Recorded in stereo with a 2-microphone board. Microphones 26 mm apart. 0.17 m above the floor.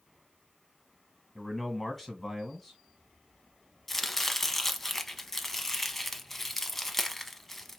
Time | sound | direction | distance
1.4 | a man speaking | 5° left (ahead or behind) | 1.7 m
3.9 | chopping | 15° left (ahead or behind) | 0.7 m